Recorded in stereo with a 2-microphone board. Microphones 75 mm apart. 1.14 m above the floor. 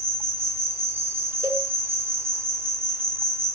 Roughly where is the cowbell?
Right.